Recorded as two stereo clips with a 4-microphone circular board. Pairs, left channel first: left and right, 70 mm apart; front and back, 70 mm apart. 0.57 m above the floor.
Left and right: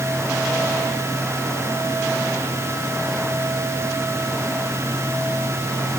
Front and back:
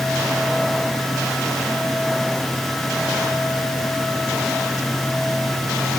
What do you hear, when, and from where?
Only background noise.